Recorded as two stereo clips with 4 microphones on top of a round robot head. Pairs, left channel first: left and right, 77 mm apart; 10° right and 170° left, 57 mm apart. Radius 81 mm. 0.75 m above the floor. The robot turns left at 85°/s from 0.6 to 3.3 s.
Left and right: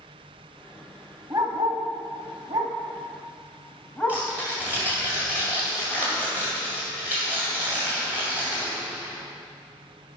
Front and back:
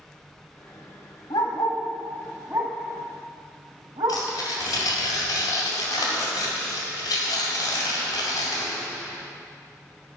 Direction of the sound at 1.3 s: 15° right.